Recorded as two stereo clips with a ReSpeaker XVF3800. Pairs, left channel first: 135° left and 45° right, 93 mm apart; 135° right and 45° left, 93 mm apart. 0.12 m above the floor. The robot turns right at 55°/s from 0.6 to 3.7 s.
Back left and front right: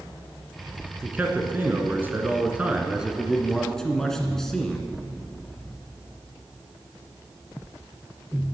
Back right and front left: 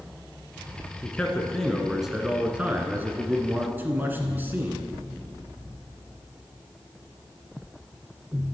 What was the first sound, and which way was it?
A man speaking, 90° right.